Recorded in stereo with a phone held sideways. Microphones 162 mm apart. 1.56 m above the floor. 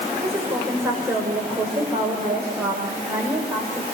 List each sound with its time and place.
0.2 s a woman speaking: 15° right (ahead or behind), 6.5 m